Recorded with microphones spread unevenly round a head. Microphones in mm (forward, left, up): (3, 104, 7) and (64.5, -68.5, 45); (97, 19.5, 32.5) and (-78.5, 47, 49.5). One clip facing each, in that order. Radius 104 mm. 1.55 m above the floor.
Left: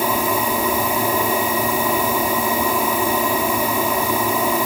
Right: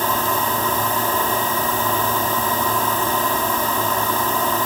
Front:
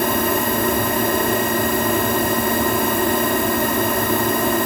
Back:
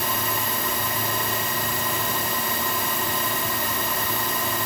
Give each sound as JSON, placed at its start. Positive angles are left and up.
{"t": 0.0, "sound": "a machine running", "azimuth_deg": 30}